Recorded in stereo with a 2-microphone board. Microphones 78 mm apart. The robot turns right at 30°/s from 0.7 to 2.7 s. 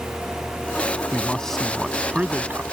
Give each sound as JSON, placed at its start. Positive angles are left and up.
{"t": 1.1, "sound": "a man speaking", "azimuth_deg": 160}